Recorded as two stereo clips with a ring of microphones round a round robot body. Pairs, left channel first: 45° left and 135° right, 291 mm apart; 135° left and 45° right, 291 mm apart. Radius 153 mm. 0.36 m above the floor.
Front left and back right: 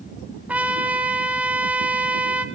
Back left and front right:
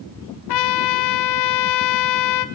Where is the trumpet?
140° left, 1.4 m.